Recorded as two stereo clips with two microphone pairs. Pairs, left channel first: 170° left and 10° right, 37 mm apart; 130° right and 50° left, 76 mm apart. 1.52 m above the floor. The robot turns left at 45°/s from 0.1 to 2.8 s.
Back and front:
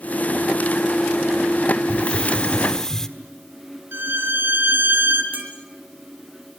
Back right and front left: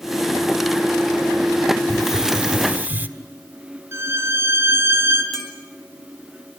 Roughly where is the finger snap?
No finger snap in this recording.